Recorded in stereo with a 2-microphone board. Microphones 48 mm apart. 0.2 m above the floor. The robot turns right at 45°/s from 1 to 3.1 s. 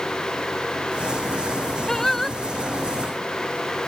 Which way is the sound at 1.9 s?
10° left (ahead or behind).